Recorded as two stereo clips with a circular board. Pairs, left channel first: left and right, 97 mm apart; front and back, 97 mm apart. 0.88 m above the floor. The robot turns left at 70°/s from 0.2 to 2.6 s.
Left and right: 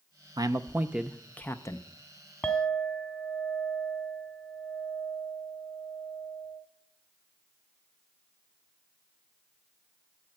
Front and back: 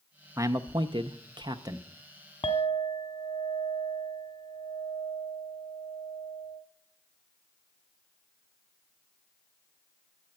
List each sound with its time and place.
0.4 s a man speaking: 125° right, 0.6 m; by 1.9 s 125° left, 0.6 m
2.4 s a clink: 15° left, 1.0 m; by 6.6 s 5° left, 1.0 m